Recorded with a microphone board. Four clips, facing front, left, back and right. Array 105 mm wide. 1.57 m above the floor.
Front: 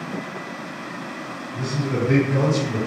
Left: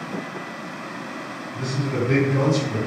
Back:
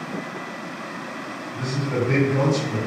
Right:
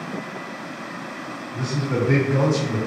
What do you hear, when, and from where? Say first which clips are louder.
1.5 s a man speaking: right 1 dB, even; 85° right, 1.6 m